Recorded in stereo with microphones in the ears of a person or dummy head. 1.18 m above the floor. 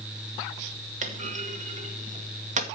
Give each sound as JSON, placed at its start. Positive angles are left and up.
{"t": 1.0, "sound": "a clunk", "side_deg": -40, "distance_m": 1.5}